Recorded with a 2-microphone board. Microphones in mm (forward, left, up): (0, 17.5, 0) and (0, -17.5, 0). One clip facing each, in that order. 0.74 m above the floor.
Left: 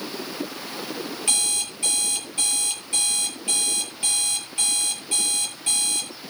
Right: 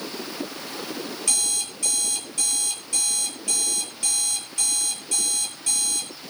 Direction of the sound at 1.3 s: 25° left (ahead or behind).